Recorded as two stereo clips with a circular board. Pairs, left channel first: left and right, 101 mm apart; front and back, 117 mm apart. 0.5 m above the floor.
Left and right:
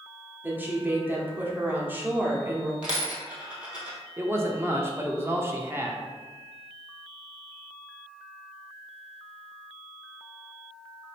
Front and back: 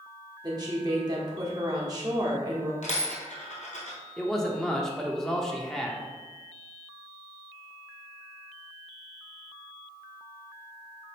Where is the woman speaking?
145° right, 1.0 m.